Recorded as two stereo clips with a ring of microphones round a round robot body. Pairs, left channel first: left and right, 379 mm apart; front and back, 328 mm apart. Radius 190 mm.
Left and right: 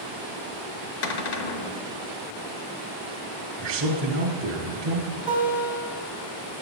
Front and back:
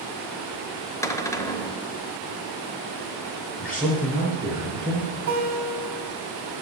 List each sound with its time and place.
1.0 s a cupboard door: 80° left, 0.8 m
3.6 s a man speaking: 80° right, 1.0 m
5.3 s a guitar: 175° right, 1.8 m